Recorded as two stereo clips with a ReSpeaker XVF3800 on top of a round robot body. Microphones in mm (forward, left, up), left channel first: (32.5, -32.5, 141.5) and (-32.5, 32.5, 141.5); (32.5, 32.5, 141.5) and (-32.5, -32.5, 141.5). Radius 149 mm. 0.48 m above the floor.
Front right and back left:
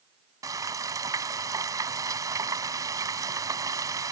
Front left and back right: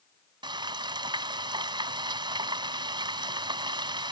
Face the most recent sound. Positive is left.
turn(degrees=-170)